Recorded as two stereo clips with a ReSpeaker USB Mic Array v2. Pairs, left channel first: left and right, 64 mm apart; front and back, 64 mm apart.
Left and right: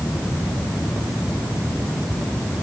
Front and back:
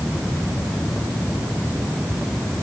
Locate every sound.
Only background noise.